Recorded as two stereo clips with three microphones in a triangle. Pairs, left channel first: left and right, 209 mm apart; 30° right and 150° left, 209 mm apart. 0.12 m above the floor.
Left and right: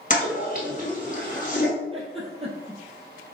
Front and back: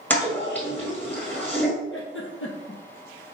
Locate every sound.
0.1 s a toilet flushing: 50° left, 1.3 m
1.9 s a giggle: 30° right, 1.2 m